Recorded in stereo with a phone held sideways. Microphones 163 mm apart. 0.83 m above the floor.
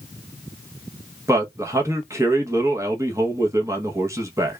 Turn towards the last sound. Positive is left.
turn(degrees=-20)  # may be behind; listen again after turning